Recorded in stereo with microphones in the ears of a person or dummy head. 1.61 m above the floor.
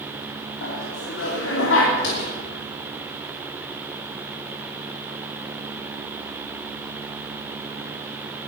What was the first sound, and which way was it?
Laughter, 80° left.